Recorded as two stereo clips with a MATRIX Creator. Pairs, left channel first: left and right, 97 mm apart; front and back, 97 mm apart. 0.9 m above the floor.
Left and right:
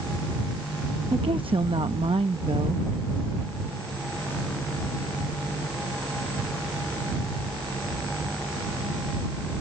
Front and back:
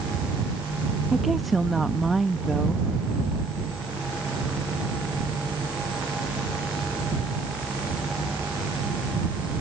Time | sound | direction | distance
1.1 | a woman speaking | 90° right | ?